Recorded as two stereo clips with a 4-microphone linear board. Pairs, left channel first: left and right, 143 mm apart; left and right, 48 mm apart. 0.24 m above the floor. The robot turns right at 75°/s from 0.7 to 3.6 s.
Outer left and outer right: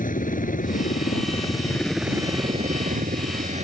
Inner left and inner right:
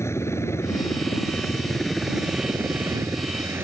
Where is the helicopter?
70° left (ahead or behind); by 3.6 s 55° right (ahead or behind).